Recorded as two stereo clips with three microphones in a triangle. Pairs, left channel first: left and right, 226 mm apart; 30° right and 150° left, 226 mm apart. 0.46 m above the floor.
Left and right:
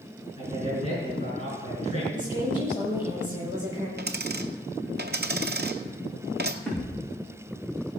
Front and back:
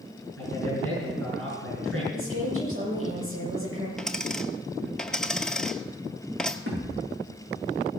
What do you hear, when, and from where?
0.4 s a man speaking: 150° left, 6 m
2.1 s a woman speaking: 160° left, 7.5 m
4.0 s a dropped coin: 115° right, 0.8 m
6.7 s a thud: 175° left, 5.5 m